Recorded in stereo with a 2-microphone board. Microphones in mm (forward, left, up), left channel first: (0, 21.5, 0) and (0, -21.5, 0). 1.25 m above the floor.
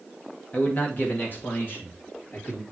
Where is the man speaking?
35° left (ahead or behind), 1.2 m; by 2.6 s 55° left (ahead or behind), 2.5 m.